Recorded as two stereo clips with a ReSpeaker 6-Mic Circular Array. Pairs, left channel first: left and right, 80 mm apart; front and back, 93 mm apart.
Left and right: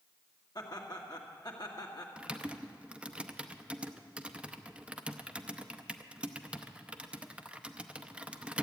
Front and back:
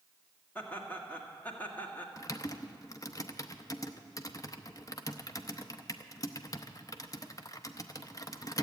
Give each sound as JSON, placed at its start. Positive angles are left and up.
{"t": 0.6, "sound": "laughter", "azimuth_deg": 70, "distance_m": 1.9}
{"t": 2.2, "sound": "typing on a keyboard", "azimuth_deg": -20, "distance_m": 0.6}